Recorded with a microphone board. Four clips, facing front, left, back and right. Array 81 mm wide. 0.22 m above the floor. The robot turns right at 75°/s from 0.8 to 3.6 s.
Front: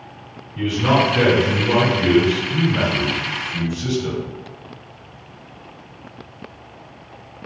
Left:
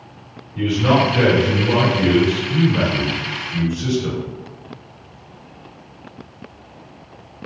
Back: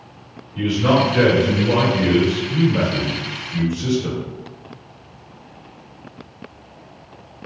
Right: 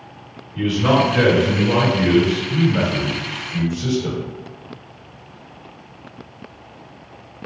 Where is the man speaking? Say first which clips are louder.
Even, back 1 dB; 105° right, 2.0 m; by 4.2 s 105° left, 2.0 m.